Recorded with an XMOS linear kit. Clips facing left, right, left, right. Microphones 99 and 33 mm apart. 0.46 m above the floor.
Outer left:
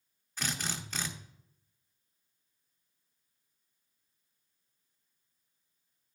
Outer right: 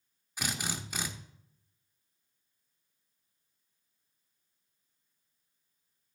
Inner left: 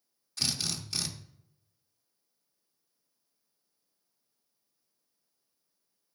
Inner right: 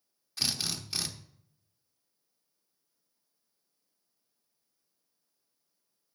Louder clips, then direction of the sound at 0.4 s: Outer right 1 dB, even; 10° right (ahead or behind).